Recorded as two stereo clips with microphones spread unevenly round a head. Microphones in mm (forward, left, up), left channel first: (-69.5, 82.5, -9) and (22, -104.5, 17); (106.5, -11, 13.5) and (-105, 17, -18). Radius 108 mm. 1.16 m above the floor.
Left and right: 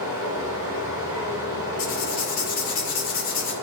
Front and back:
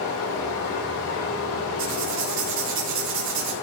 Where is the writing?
165° left, 2.5 m.